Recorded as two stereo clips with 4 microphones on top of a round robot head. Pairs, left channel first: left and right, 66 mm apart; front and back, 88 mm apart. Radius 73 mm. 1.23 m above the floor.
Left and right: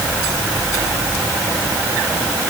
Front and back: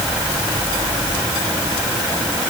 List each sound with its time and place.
Only background noise.